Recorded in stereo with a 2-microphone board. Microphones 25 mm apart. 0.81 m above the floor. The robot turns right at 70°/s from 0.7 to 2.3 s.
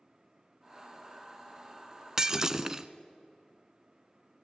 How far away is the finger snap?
No finger snap in this recording.